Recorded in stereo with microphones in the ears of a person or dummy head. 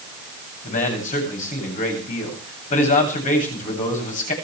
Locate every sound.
0.6 s a man speaking: 45° left (ahead or behind), 9 m